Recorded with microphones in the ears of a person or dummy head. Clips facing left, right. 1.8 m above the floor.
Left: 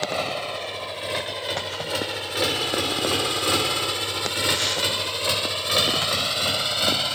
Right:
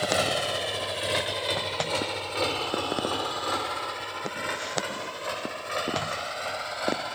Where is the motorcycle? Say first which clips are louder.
Right 1 dB; 10° right (ahead or behind); by 7.2 s 55° left (ahead or behind).